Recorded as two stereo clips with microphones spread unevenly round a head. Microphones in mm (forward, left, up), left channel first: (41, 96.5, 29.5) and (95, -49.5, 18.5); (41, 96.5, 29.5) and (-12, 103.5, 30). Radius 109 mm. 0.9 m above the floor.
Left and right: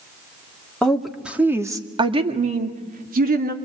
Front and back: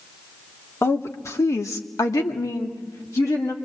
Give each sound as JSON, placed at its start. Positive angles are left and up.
{"t": 0.8, "sound": "a woman speaking", "azimuth_deg": 25, "distance_m": 2.0}